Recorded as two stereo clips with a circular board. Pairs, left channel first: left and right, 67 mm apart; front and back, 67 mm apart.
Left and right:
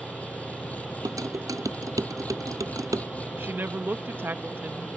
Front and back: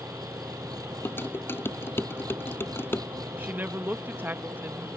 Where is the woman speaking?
135° right.